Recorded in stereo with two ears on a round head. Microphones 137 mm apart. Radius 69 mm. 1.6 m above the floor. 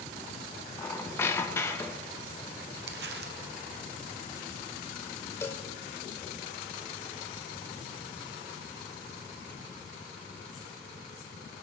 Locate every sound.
0.8 s a squeak: 15° left (ahead or behind), 0.8 m
2.9 s crumpling: 80° right, 1.1 m
5.4 s a cowbell: 15° left (ahead or behind), 0.8 m